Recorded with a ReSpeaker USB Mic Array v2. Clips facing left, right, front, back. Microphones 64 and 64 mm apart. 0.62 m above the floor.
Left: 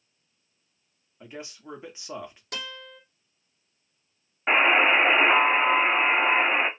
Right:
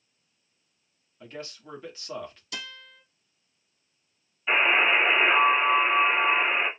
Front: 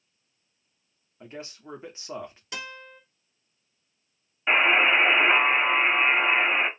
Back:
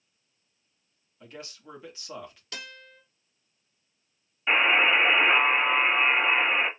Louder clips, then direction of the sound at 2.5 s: Left 3 dB, front 5 dB; 75° left.